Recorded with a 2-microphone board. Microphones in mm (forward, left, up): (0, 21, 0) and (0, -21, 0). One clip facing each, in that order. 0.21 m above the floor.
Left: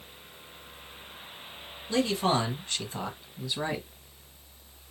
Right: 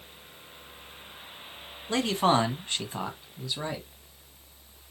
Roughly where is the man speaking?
Right.